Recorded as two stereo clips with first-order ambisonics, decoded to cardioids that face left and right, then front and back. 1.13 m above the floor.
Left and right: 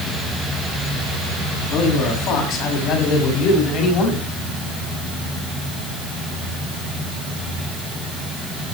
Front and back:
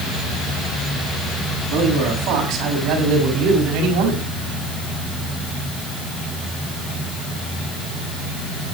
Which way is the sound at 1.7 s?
135° left.